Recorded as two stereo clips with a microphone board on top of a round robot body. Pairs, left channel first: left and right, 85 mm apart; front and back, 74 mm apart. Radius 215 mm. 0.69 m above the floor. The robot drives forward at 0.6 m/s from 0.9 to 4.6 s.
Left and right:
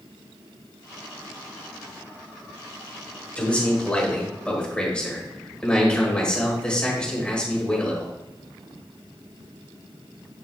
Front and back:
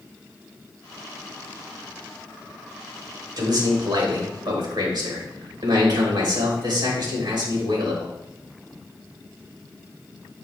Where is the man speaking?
165° left, 2.5 m.